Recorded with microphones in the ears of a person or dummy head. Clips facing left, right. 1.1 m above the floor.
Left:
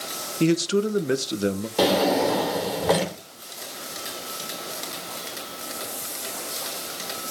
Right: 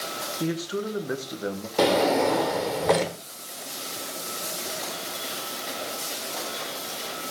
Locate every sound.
0.4 s a man speaking: 30° left (ahead or behind), 0.8 m
1.8 s a drawer: centre (ahead or behind), 1.0 m